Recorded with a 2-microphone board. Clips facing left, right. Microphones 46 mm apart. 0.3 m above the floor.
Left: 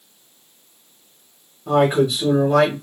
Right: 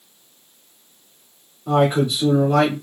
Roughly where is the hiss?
No hiss in this recording.